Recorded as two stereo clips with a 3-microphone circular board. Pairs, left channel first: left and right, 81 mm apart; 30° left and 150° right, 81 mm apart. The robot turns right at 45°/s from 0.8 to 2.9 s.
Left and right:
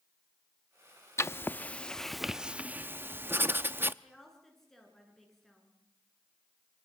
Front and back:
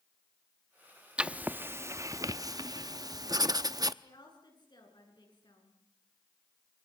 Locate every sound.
1.2 s writing: 135° left, 0.7 m; by 3.9 s 145° right, 0.7 m
4.0 s a woman speaking: 5° left, 8 m